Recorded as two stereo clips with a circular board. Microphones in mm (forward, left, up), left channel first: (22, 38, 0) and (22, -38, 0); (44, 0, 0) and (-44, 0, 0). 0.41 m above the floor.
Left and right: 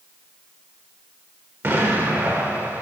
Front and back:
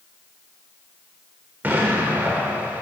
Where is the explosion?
125° right, 0.8 m.